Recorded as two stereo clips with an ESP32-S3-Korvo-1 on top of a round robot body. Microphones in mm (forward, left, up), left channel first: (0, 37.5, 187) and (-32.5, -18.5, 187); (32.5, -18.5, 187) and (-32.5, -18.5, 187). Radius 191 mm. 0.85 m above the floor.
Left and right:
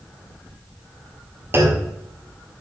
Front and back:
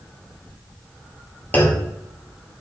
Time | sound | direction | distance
1.5 | a clunk | 65° right | 1.7 m